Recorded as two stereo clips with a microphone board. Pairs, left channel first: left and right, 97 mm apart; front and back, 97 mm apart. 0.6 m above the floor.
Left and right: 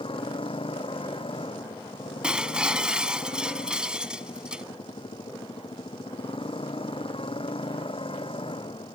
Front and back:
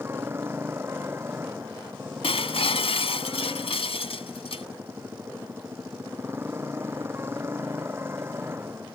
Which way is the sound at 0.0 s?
115° left.